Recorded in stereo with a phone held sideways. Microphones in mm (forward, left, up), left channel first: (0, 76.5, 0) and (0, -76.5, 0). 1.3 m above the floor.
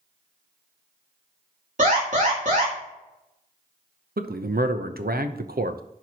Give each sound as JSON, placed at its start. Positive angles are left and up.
{"t": 1.8, "sound": "an alarm", "side_deg": -55, "distance_m": 3.0}
{"t": 4.2, "sound": "a man speaking", "side_deg": -80, "distance_m": 0.7}